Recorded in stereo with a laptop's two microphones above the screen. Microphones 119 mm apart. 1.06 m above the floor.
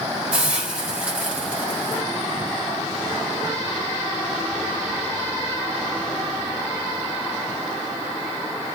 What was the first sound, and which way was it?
A hiss, 10° right (ahead or behind).